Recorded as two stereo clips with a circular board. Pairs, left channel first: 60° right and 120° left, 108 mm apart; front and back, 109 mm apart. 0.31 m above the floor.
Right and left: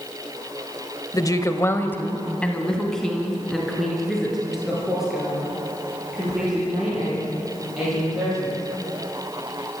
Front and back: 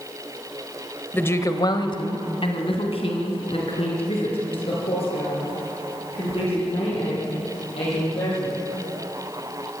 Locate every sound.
1.1 s a woman speaking: 60° right, 1.2 m; by 8.5 s 35° left, 10.5 m